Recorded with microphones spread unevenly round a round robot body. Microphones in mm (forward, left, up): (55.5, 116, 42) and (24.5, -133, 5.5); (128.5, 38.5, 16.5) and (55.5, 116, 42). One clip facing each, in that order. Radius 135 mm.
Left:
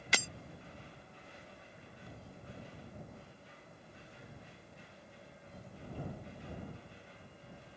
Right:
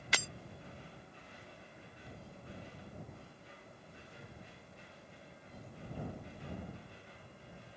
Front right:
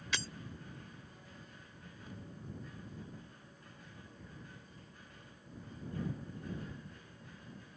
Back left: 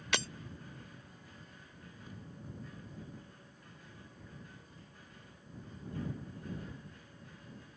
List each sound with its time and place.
0.1 s breaking glass: 100° left